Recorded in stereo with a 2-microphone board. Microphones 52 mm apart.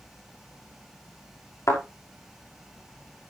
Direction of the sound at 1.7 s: 60° left (ahead or behind).